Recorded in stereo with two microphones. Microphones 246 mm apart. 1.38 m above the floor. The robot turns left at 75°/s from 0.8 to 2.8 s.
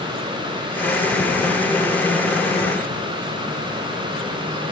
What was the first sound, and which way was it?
Only background noise.